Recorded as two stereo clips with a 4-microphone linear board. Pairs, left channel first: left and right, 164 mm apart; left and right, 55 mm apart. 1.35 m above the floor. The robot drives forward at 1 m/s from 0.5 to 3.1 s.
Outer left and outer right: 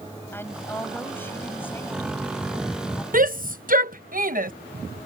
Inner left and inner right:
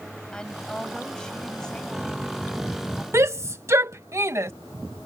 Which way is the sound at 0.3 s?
15° left (ahead or behind).